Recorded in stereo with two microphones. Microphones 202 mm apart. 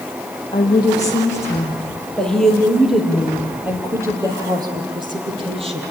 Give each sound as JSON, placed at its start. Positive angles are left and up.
{"t": 0.5, "sound": "a woman speaking", "side_deg": 20, "distance_m": 5.5}